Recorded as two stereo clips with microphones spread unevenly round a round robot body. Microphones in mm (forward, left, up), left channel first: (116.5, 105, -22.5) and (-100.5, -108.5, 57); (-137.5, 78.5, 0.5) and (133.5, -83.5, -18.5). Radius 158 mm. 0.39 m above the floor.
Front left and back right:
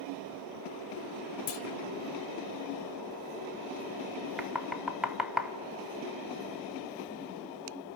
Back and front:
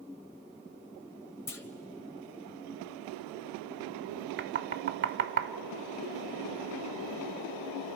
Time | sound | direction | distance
1.5 | a clunk | 65° left | 0.9 m
4.4 | knocking | 30° right | 0.6 m